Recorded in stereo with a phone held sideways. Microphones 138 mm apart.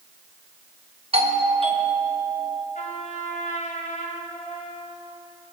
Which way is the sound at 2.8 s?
75° left (ahead or behind).